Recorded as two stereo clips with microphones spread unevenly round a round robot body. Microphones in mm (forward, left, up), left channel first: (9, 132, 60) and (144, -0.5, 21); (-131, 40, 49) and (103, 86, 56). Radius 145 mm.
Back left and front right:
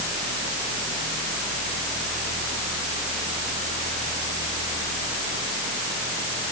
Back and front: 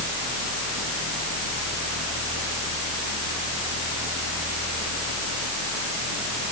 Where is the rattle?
No rattle in this recording.